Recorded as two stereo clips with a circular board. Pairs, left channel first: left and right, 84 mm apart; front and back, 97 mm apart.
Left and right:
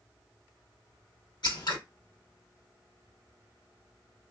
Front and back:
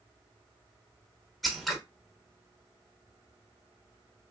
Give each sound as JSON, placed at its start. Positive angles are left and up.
{"t": 1.4, "sound": "scissors", "azimuth_deg": 90, "distance_m": 0.9}